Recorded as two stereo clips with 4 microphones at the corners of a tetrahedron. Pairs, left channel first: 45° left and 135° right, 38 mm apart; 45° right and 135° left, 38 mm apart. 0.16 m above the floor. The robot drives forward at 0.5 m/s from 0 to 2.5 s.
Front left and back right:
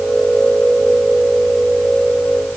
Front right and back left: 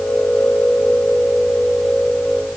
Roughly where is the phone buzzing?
I don't hear a phone buzzing.